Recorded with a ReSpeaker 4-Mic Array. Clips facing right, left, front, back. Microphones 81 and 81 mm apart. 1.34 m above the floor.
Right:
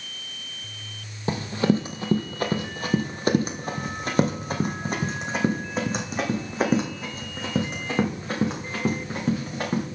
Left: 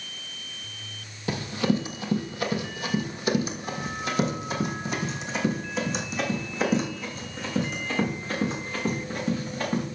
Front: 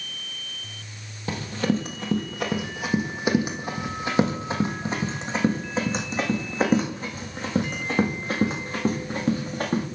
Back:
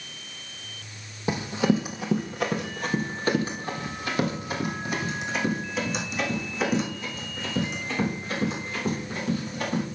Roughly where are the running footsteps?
Behind right.